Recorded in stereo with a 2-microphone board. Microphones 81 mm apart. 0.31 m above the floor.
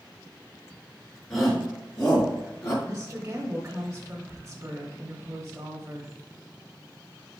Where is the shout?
5° left (ahead or behind), 3 m; by 2.7 s 30° left (ahead or behind), 2.5 m.